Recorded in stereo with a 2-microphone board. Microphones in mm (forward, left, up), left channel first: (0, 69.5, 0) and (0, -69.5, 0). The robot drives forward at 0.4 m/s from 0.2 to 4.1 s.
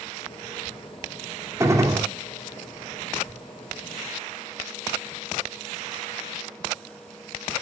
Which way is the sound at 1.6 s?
20° right (ahead or behind).